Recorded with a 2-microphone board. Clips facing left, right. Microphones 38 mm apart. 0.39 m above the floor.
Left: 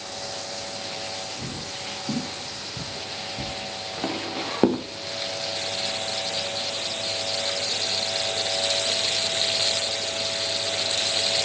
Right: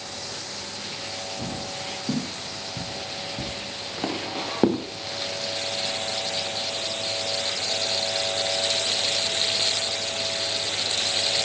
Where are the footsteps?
15° right (ahead or behind), 5.5 m; by 4.8 s 15° left (ahead or behind), 1.8 m.